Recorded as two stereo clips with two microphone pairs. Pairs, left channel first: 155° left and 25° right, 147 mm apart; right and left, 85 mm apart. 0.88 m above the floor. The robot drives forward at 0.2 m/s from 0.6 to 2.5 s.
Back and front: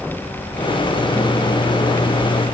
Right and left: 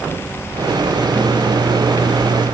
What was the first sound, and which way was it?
Only background noise.